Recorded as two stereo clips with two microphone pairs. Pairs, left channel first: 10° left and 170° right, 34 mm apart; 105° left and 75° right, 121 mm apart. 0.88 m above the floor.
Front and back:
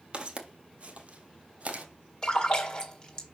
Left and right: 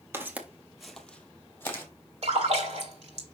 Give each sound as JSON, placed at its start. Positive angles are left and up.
{"t": 0.1, "sound": "footsteps", "azimuth_deg": -135, "distance_m": 1.2}
{"t": 2.2, "sound": "a splash", "azimuth_deg": -55, "distance_m": 2.0}